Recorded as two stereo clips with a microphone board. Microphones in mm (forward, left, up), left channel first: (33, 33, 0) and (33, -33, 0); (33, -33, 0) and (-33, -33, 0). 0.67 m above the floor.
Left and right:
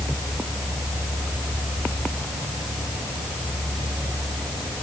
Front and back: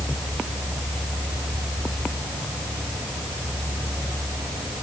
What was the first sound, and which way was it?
Only background noise.